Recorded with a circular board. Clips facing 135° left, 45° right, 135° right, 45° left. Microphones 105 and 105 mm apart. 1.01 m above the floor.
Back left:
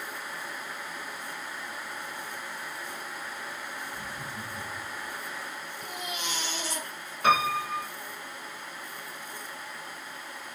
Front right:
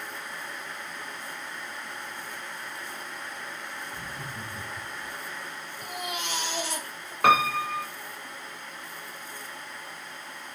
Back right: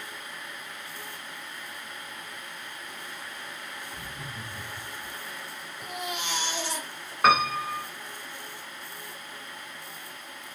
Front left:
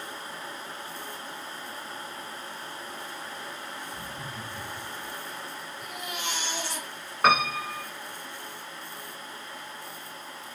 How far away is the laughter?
About 4.5 m.